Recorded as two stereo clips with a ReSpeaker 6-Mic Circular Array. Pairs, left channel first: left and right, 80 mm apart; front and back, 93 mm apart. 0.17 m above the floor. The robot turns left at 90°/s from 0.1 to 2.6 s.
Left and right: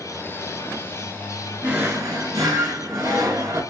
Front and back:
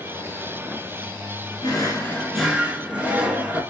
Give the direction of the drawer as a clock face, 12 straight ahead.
1 o'clock.